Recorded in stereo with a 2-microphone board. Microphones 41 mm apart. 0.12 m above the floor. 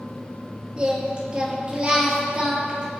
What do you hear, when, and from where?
0.8 s singing: 25° right (ahead or behind), 3 m